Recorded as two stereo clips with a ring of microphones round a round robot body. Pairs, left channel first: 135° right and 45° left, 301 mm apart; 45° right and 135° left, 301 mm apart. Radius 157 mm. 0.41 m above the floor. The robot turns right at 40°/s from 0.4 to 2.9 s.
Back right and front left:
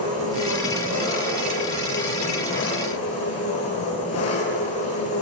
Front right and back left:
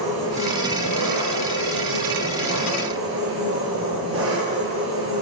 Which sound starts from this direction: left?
An engine running, at 0.0 s.